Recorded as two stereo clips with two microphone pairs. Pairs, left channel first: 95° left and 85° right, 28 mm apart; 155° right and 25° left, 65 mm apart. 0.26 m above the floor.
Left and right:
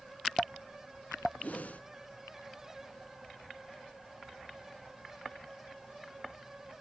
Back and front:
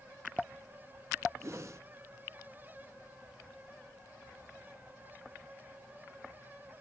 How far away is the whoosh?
About 0.6 m.